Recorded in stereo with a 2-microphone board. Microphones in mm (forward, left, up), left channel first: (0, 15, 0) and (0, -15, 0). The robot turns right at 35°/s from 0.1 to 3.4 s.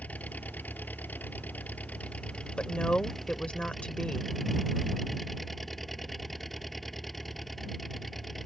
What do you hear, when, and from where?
0.0 s an engine running: 55° left; by 8.5 s 170° left
2.6 s a woman speaking: 45° left (ahead or behind)